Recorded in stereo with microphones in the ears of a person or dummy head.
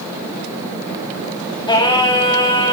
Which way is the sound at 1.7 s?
25° left (ahead or behind).